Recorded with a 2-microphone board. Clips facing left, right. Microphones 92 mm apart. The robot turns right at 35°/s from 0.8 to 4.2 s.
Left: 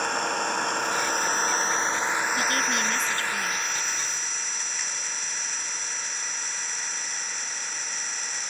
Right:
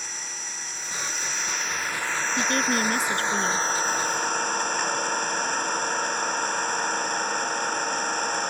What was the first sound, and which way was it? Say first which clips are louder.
An engine running: left 14 dB; 115° left.